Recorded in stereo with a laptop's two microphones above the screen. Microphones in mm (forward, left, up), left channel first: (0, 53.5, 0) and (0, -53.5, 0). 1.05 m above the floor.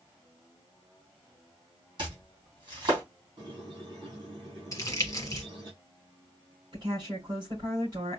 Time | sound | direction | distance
2.0 | chopping | 45° right (ahead or behind) | 3 m
3.4 | a squeak | 40° right (ahead or behind) | 4 m
4.7 | crumpling | 30° left (ahead or behind) | 1.4 m
6.7 | a woman speaking | 40° right (ahead or behind) | 4.5 m